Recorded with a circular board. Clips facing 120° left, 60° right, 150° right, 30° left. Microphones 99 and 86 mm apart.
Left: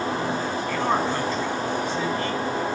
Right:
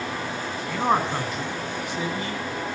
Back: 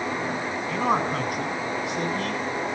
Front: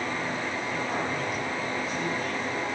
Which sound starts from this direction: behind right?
A man speaking, at 0.7 s.